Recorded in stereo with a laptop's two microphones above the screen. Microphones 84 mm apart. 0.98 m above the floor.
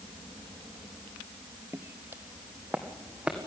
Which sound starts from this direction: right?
Footsteps, at 1.7 s.